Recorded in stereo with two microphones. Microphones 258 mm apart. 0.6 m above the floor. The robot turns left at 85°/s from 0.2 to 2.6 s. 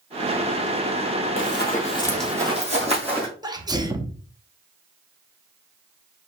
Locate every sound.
1.4 s running footsteps: 50° left (ahead or behind), 1.1 m; by 3.3 s 20° right (ahead or behind), 2.0 m
3.4 s a sneeze: 15° right (ahead or behind), 0.7 m